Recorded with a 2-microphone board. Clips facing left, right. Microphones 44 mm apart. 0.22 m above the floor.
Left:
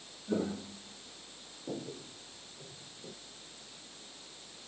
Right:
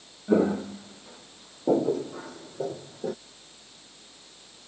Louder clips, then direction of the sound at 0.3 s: Right 12 dB; 40° right (ahead or behind).